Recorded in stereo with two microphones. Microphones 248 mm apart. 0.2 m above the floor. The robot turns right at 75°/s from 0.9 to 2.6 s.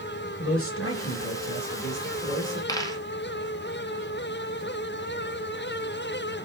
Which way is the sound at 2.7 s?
15° left (ahead or behind).